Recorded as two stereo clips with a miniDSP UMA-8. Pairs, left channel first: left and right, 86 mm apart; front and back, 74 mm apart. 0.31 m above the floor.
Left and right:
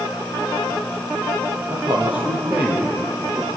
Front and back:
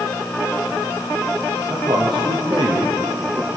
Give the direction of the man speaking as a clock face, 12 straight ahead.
5 o'clock.